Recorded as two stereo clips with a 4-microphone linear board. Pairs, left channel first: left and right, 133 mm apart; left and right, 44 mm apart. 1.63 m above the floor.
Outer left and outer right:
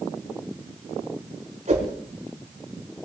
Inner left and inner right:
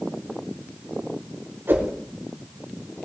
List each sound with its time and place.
1.7 s a whoosh: 60° right (ahead or behind), 4 m